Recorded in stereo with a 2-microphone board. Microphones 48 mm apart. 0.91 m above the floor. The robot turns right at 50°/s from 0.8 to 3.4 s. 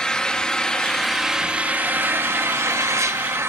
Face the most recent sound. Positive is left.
turn(degrees=-65)